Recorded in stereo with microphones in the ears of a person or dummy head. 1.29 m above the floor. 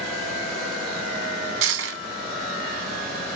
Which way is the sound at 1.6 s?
65° right (ahead or behind).